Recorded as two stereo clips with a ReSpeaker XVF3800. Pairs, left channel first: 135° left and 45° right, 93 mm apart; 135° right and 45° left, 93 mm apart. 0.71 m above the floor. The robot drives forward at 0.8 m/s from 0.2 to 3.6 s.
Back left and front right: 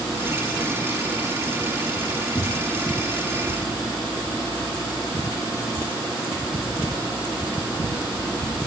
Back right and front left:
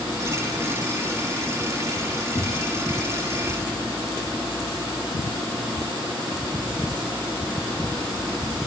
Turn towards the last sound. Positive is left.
turn(degrees=-165)